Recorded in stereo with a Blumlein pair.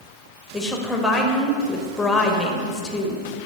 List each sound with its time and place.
0.5 s a woman speaking: 5° left, 1.1 m